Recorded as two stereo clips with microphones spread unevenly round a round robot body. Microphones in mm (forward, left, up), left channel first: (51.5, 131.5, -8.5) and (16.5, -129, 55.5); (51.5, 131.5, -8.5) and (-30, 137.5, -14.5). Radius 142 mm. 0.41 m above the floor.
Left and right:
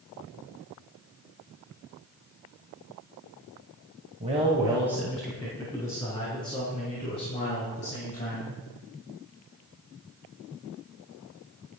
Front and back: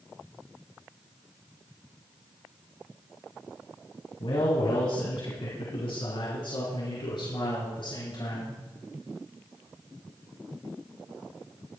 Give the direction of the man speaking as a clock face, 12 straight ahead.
1 o'clock.